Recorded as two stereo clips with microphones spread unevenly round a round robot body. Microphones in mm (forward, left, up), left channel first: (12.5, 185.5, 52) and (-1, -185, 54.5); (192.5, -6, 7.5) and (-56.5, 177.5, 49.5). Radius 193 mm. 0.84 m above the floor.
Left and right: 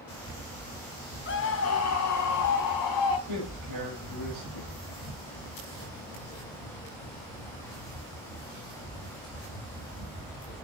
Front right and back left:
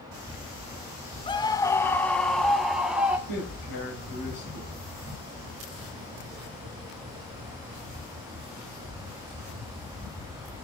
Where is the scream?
30° left, 1.1 m; by 3.2 s 55° left, 2 m.